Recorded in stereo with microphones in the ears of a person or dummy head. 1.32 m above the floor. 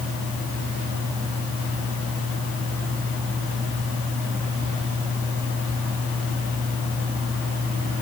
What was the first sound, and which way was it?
Only background noise.